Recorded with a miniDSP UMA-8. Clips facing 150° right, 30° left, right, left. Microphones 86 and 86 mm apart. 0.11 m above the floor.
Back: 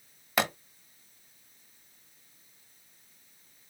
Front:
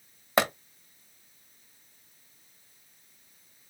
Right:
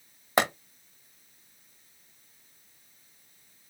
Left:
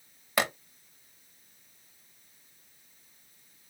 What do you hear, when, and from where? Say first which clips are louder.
0.4 s a pop: front 4 dB, right 4 dB; 30° right, 3.5 m